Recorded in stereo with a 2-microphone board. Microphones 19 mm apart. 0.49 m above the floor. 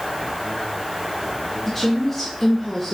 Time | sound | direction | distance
1.7 | a woman speaking | 10° left (ahead or behind) | 1.0 m